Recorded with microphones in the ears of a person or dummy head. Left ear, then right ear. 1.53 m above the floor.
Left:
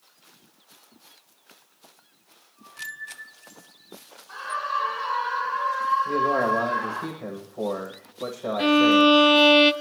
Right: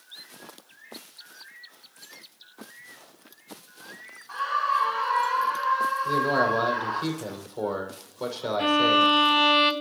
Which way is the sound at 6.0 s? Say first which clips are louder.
Left 1 dB; 70° right (ahead or behind).